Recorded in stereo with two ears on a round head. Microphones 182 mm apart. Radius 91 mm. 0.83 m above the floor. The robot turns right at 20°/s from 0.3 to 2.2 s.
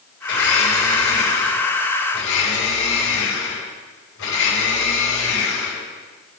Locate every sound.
0.3 s a blender: 60° left, 5 m; by 5.9 s 100° left, 5 m